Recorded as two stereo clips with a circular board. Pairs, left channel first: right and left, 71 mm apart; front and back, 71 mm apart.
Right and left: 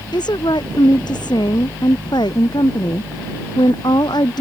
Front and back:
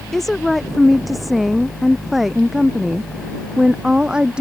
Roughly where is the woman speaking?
Right.